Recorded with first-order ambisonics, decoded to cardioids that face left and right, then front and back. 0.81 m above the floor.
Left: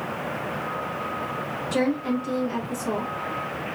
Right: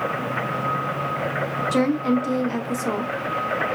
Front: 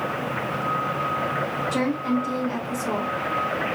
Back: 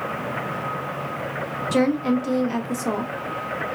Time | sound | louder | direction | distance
1.7 | a woman speaking | right 2 dB, back 3 dB | 145° right | 0.6 m